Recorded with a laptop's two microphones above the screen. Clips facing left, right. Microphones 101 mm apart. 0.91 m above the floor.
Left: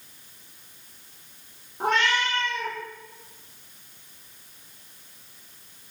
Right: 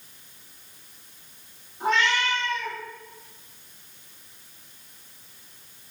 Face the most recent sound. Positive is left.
turn(degrees=55)  # may be behind; listen again after turning